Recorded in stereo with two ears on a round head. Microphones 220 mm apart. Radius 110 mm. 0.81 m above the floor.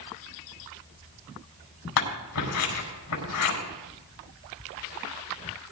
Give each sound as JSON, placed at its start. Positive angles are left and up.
{"t": 2.0, "sound": "scissors", "side_deg": 80, "distance_m": 5.0}